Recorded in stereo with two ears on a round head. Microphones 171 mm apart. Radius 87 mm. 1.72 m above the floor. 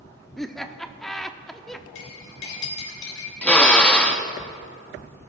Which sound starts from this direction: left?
Cutlery clinking, at 1.9 s.